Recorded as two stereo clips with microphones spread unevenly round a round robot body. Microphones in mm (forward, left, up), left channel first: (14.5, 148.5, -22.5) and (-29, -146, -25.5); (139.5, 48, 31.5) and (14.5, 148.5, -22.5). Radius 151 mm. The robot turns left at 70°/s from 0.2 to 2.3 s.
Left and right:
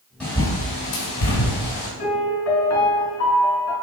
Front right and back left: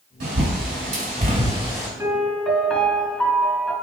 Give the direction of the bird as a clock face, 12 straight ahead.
6 o'clock.